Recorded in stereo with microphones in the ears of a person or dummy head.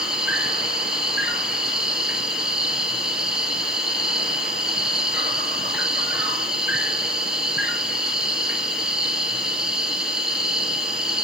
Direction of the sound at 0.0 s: 10° right (ahead or behind).